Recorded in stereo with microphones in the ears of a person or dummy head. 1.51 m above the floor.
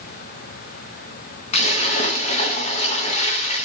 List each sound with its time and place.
1.5 s a splash: 35° left (ahead or behind), 3.5 m